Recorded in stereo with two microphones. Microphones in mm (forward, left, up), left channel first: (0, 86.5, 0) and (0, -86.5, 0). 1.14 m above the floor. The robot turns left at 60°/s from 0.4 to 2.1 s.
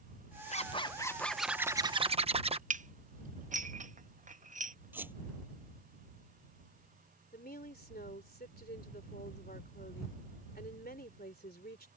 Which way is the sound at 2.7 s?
50° right (ahead or behind).